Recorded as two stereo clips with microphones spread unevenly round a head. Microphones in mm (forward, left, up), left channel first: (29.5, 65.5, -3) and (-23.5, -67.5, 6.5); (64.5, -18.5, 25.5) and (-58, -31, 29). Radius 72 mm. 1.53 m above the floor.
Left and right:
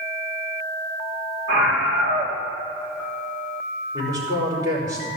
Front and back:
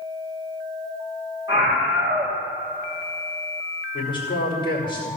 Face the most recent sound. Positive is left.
turn(degrees=-50)